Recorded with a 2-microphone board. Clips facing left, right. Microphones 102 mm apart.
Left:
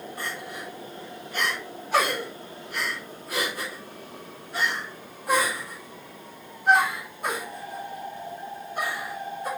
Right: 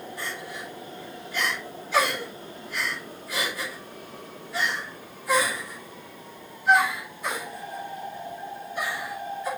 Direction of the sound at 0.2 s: 45° left (ahead or behind).